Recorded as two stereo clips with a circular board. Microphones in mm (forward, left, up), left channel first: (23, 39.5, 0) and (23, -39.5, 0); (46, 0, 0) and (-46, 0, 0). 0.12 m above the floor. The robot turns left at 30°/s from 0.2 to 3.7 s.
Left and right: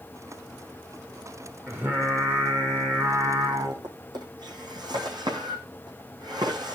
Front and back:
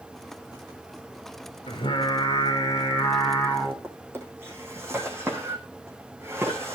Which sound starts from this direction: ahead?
Singing, at 1.7 s.